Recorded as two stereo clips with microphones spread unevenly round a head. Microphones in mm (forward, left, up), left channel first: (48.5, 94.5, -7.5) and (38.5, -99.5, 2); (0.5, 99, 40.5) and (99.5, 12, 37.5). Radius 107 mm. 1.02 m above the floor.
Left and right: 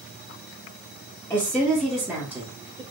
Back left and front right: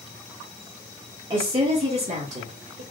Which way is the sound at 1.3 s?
10° left.